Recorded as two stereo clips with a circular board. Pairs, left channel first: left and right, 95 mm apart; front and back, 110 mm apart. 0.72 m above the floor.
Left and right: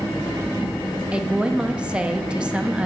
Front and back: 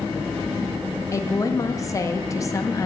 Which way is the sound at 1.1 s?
20° right.